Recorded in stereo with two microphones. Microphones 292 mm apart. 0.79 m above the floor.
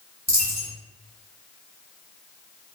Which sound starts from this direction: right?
A dropped coin, at 0.3 s.